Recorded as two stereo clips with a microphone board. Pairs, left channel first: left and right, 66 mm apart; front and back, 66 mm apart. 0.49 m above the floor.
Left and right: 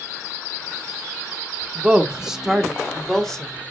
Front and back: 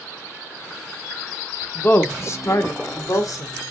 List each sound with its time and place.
1.8 s a woman speaking: 30° right, 0.9 m; by 3.5 s 10° left, 1.5 m